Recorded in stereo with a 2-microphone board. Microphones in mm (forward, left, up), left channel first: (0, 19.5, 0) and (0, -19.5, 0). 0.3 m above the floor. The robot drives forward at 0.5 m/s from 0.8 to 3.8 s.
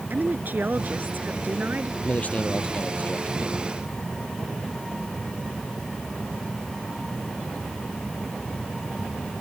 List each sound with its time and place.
0.1 s a woman speaking: 55° right (ahead or behind); by 1.9 s 50° right (ahead or behind)
2.0 s a man speaking: 40° left (ahead or behind); by 3.7 s 45° left (ahead or behind)